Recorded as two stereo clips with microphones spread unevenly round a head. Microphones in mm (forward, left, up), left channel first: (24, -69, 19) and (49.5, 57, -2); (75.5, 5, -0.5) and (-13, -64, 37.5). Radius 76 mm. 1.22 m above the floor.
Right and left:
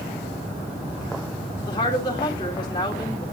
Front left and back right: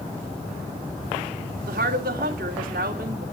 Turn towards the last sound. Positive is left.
turn(degrees=-165)